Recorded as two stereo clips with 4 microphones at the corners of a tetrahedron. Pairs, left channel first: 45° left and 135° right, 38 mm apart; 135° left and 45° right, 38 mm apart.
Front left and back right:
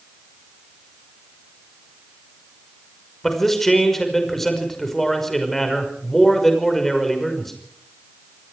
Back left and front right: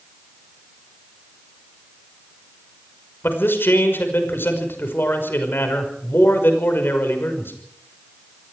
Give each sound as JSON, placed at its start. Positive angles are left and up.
{"t": 3.2, "sound": "a man speaking", "azimuth_deg": 125, "distance_m": 5.5}